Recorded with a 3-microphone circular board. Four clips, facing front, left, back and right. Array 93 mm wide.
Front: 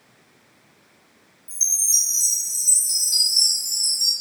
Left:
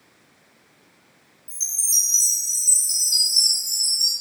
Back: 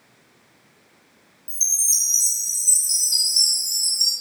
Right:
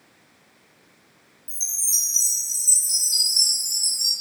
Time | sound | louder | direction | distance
1.5 | a chime | left 2 dB, front 1 dB | 25° right | 1.0 m